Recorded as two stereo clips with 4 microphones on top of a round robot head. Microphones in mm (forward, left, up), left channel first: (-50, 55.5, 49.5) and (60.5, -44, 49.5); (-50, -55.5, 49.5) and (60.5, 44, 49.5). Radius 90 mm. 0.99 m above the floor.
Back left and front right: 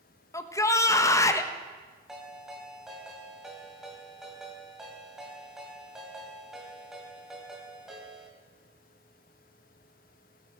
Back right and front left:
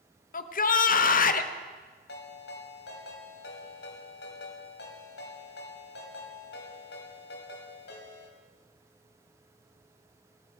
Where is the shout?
155° right, 1.1 m.